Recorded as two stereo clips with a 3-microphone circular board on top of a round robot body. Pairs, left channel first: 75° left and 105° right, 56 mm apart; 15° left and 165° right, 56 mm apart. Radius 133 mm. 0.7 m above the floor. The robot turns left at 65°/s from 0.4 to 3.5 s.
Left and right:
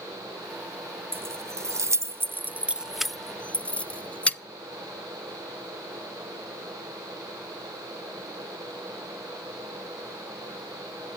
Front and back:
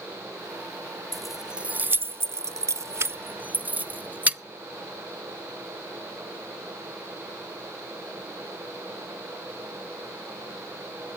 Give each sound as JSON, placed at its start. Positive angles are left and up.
{"t": 1.1, "sound": "keys jangling", "azimuth_deg": -65, "distance_m": 0.7}